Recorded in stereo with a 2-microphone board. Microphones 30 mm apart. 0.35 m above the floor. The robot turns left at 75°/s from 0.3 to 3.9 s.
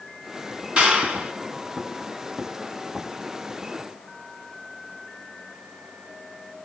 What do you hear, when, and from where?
0.8 s a clap: 50° right, 3 m; by 1.3 s 90° right, 3 m